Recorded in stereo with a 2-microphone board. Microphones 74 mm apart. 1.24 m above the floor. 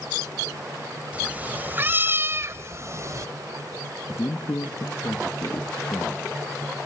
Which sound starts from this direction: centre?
A cat meowing, at 1.1 s.